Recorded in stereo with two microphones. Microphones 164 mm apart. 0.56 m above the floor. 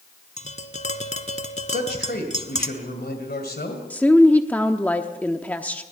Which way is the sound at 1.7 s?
75° left (ahead or behind).